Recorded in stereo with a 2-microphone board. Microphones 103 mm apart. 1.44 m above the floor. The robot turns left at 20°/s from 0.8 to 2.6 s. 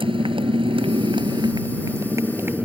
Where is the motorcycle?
125° right; by 2.7 s 160° right.